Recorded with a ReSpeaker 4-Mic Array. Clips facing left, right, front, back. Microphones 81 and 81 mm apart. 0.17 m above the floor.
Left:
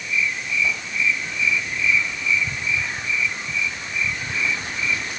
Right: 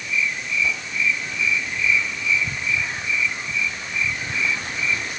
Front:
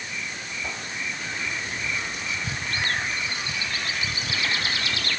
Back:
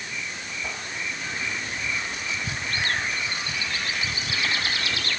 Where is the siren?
I don't hear a siren.